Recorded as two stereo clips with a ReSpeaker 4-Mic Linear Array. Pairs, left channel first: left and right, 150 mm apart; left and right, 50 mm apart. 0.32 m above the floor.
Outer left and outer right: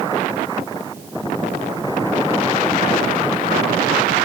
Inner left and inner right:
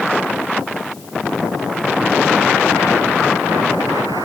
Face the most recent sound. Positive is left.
No sound to turn to.